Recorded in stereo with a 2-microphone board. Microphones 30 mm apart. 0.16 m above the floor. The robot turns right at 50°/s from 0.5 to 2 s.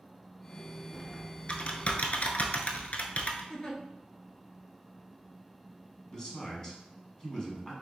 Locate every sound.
0.9 s typing on a keyboard: 10° left (ahead or behind), 0.6 m; by 3.4 s 55° left (ahead or behind), 0.6 m
3.5 s a giggle: 25° left (ahead or behind), 0.9 m
6.1 s a man speaking: 20° left (ahead or behind), 1.2 m